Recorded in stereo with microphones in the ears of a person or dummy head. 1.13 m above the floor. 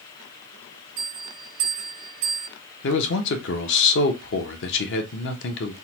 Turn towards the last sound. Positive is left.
turn(degrees=55)  # may be behind; listen again after turning